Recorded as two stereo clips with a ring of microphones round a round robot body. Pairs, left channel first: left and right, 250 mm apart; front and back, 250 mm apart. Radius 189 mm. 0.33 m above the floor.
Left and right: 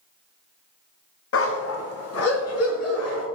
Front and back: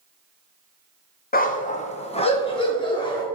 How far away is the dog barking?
About 1.1 m.